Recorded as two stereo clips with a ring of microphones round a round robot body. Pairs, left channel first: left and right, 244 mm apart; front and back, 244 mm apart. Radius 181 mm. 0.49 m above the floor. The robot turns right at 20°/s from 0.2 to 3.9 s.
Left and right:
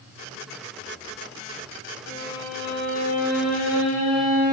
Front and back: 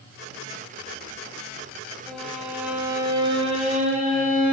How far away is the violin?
About 2.0 m.